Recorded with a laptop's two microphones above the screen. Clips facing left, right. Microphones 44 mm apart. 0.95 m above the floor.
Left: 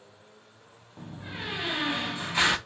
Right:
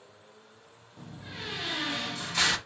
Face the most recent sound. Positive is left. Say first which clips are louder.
# left 3 dB
turn(degrees=20)  # may be behind; listen again after turning